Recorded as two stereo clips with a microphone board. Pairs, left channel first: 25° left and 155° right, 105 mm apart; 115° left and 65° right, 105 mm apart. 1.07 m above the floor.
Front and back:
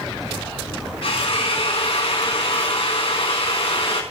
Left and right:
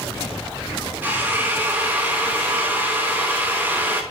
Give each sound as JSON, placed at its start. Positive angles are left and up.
{"t": 1.0, "sound": "a drill", "azimuth_deg": 10, "distance_m": 6.0}